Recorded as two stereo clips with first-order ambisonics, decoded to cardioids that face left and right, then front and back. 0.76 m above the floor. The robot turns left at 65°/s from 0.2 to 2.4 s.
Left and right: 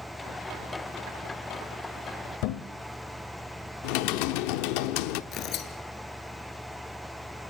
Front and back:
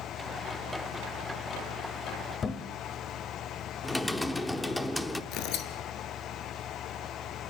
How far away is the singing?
No singing in this recording.